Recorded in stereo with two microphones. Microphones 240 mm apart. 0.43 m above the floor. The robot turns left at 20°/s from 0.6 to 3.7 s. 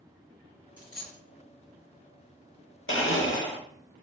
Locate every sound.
0.8 s a dropped coin: 50° right (ahead or behind), 1.9 m; by 1.2 s 40° right (ahead or behind), 1.9 m
2.9 s a blender: 60° left (ahead or behind), 0.7 m; by 3.6 s 45° left (ahead or behind), 0.7 m